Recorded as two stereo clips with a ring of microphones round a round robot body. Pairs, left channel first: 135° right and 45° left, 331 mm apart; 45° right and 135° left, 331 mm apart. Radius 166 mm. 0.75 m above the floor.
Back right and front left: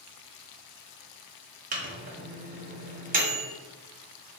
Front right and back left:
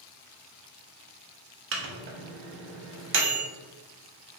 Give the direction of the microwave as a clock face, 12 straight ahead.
9 o'clock.